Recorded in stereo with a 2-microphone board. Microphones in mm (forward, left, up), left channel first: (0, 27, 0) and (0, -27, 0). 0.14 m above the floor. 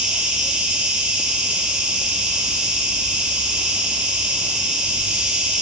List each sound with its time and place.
0.0 s an insect: 20° right (ahead or behind), 1.5 m